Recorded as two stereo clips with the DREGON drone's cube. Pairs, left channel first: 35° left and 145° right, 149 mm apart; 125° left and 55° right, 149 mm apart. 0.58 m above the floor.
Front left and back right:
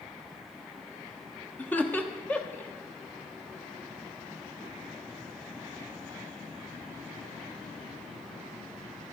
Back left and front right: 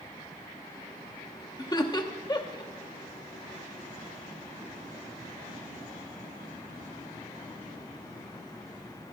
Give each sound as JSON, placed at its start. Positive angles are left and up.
{"t": 1.6, "sound": "laughter", "azimuth_deg": 105, "distance_m": 0.9}